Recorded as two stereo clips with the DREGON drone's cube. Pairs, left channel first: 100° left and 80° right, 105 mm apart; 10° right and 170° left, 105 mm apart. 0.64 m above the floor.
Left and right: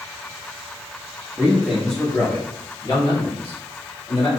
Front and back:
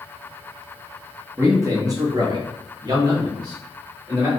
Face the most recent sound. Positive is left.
turn(degrees=115)